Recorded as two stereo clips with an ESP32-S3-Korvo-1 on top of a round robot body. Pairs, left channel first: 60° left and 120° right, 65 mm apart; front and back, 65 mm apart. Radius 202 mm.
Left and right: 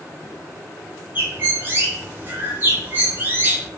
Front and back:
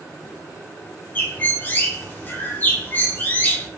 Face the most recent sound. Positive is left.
turn(degrees=-60)